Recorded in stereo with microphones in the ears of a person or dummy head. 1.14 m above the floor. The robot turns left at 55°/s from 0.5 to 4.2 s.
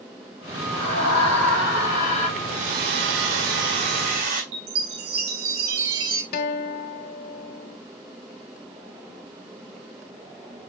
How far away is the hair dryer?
About 1.3 m.